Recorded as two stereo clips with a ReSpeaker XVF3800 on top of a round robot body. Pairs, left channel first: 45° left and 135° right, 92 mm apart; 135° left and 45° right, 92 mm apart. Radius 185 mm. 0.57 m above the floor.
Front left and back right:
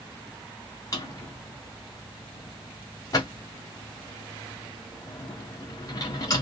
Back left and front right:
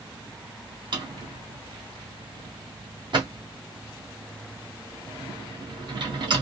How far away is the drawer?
About 1.5 m.